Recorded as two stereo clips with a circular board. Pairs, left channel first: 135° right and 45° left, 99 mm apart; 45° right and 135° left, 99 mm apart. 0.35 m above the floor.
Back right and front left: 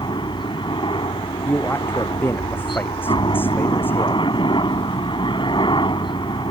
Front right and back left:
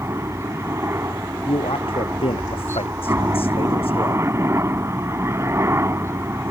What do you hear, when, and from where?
0.0 s a helicopter: 165° right
1.4 s a man speaking: 65° right